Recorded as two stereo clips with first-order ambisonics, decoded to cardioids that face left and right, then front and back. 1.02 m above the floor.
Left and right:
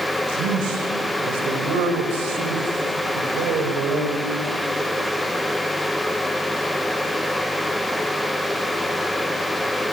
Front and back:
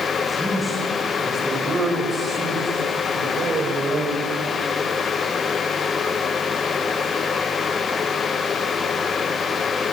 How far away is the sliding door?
I don't hear a sliding door.